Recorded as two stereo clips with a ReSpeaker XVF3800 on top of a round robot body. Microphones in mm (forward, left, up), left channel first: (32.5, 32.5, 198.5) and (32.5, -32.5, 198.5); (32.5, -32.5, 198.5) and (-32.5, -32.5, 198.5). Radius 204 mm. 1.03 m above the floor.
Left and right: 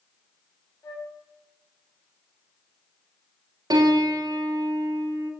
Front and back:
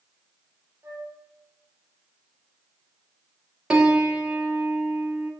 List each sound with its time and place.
0.8 s a flute: 125° left, 2.0 m
3.7 s a piano: 105° right, 2.0 m